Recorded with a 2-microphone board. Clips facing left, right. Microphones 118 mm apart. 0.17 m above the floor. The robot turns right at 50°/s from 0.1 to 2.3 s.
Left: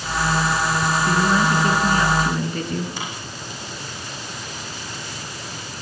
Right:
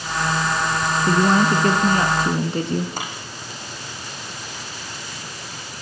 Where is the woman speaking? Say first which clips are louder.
Right 4 dB; 115° right, 1.5 m; by 2.9 s 50° right, 1.5 m.